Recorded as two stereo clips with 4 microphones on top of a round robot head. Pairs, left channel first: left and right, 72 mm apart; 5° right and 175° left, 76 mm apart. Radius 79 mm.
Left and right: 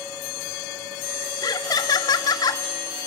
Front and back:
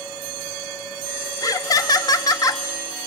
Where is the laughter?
40° left, 1.3 m.